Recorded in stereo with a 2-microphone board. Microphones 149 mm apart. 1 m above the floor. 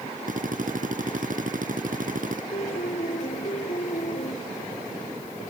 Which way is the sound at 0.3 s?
65° right (ahead or behind).